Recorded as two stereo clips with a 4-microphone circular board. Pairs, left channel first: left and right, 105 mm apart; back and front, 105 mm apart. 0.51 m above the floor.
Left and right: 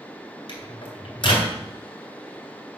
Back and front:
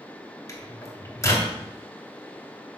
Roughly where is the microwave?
Behind left.